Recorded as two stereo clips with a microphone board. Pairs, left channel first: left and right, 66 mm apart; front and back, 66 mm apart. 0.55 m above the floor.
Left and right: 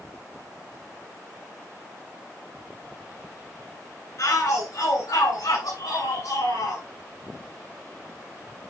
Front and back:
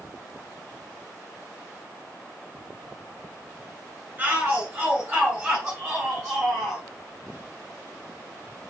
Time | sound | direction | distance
4.2 | a shout | 110° left | 3 m